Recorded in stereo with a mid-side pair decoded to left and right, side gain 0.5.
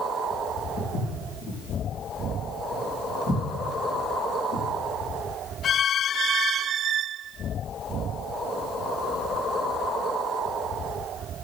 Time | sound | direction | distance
0.8 | footsteps | 65° left | 6.5 m